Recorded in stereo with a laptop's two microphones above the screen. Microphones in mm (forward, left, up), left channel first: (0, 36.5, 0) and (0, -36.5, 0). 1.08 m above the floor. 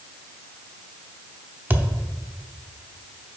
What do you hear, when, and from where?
1.7 s a thud: 25° right (ahead or behind), 0.7 m